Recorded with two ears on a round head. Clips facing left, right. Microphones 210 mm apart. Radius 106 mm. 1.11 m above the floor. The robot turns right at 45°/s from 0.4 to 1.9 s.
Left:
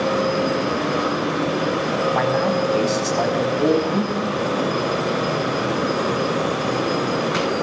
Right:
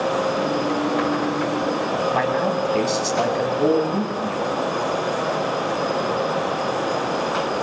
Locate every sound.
2.1 s a man speaking: centre (ahead or behind), 6.5 m